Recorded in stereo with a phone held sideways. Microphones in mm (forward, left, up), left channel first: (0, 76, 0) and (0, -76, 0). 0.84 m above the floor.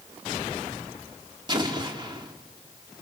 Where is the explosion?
30° right (ahead or behind), 2.5 m.